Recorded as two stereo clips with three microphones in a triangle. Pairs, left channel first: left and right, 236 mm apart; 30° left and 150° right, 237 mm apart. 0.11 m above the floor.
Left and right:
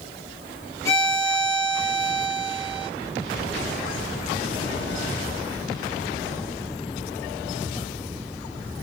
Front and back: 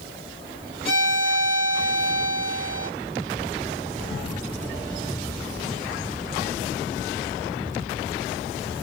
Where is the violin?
20° left, 2.5 m.